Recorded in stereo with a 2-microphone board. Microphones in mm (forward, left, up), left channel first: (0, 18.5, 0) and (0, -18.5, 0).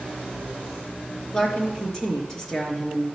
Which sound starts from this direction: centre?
A woman speaking, at 1.3 s.